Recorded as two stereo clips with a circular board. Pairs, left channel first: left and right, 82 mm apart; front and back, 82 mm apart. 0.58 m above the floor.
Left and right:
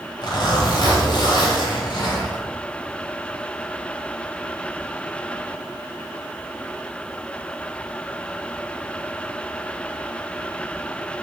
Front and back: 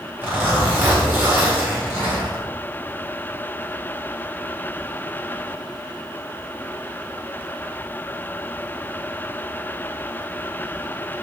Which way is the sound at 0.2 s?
115° left.